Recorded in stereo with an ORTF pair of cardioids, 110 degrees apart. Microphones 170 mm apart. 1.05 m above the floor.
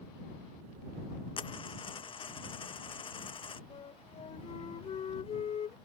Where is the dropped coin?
30° left.